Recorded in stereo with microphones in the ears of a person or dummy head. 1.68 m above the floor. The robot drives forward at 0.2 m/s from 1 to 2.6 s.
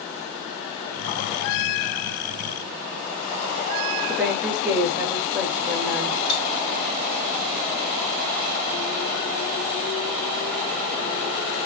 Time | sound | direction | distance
4.1 | a woman speaking | 5° right (ahead or behind) | 1.0 m
6.3 | cutlery clinking | 70° left (ahead or behind) | 2 m